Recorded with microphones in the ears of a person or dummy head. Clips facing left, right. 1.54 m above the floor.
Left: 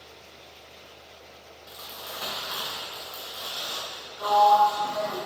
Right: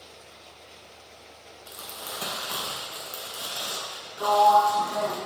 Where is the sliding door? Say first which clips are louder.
Even; 50° right (ahead or behind), 0.6 m.